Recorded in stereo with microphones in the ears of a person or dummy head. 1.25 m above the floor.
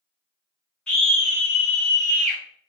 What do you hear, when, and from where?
0.9 s a scream: 5° left (ahead or behind), 1.2 m; by 2.4 s 35° right (ahead or behind), 1.0 m